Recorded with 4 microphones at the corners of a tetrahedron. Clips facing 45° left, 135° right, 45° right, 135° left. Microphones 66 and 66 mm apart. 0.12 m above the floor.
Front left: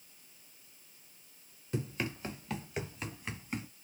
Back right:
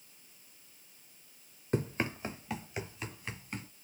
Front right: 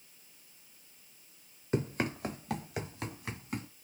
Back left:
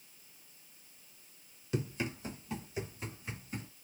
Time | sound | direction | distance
1.7 | running footsteps | 90° right | 0.8 m